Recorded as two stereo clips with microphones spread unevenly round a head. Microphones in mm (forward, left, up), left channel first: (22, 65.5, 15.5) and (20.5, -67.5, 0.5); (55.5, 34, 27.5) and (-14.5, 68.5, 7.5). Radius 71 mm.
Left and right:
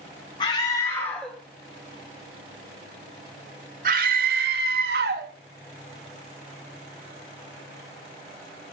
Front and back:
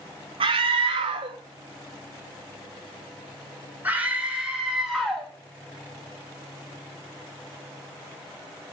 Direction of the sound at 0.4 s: 150° left.